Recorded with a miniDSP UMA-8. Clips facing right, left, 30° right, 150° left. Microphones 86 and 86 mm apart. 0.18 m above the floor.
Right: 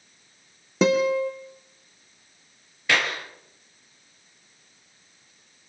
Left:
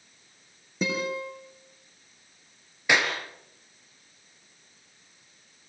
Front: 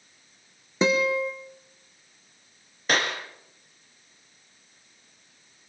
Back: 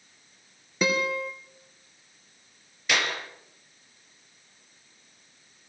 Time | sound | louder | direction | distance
0.8 | a guitar | right 10 dB, front 4 dB | 95° right | 3.5 m
2.9 | a clap | even, front 2 dB | 20° left | 3.5 m